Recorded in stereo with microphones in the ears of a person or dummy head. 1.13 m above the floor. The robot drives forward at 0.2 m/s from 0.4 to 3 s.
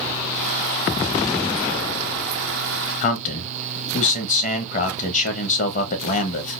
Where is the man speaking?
40° left (ahead or behind), 0.9 m.